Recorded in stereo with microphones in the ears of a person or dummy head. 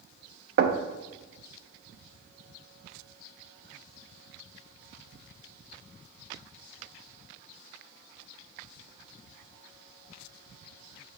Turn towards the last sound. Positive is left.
turn(degrees=-60)  # may be behind; listen again after turning